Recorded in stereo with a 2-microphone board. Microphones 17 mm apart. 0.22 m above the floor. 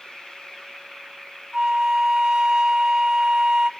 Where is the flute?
55° right (ahead or behind), 0.6 m.